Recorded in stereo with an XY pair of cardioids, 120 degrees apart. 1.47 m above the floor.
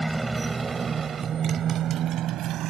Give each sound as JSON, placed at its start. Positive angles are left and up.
{"t": 0.0, "sound": "a motorcycle", "azimuth_deg": -10}